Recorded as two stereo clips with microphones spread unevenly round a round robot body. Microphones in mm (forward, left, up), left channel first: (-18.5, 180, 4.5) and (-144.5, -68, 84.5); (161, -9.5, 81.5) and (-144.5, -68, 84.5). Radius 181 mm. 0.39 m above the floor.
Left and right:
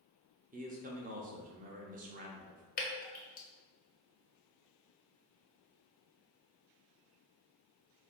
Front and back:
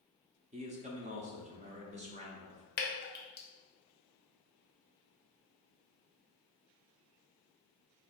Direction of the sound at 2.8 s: 55° left.